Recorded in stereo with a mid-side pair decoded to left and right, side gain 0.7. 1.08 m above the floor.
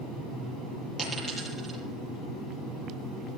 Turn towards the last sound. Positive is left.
turn(degrees=-5)